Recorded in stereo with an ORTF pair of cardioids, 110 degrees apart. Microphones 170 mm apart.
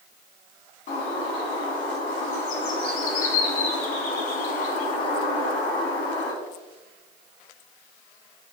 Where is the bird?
60° left, 1.1 m.